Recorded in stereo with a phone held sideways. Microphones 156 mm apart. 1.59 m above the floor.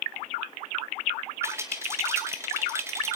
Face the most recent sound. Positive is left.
turn(degrees=-20)  # may be behind; listen again after turning